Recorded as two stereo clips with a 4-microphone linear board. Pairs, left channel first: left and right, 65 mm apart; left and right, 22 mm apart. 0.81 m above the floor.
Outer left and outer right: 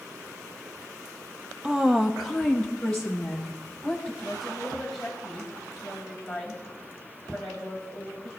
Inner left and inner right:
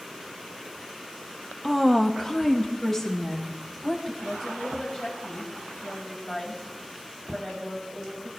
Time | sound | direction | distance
1.6 | a woman speaking | 10° right (ahead or behind) | 0.5 m
4.2 | a woman speaking | 5° left (ahead or behind) | 3.5 m